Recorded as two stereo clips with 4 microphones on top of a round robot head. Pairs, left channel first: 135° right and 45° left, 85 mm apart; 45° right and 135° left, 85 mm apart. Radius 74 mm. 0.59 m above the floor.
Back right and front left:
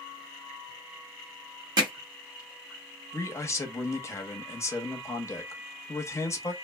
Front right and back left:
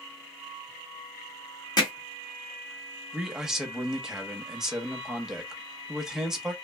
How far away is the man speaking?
About 1.0 m.